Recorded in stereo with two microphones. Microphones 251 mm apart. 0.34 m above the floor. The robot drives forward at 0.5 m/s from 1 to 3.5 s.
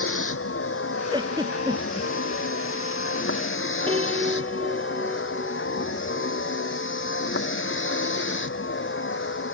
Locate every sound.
0.0 s a vehicle: 55° left (ahead or behind); by 9.5 s 50° left (ahead or behind)
1.1 s a giggle: 20° right (ahead or behind); by 2.1 s 15° right (ahead or behind)
3.9 s a piano: 20° right (ahead or behind)